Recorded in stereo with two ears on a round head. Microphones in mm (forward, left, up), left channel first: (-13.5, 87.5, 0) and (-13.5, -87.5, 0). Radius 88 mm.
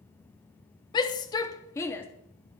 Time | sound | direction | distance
0.9 | a shout | 20° left (ahead or behind) | 0.8 m